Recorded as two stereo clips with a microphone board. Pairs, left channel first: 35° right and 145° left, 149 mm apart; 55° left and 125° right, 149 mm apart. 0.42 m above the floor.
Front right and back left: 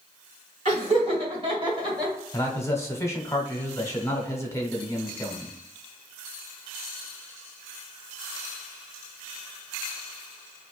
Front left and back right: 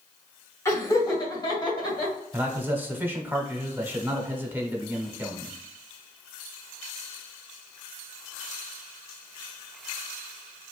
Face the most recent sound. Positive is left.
turn(degrees=-70)